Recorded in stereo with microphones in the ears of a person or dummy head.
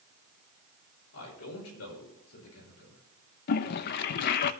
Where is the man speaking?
85° left, 6 m.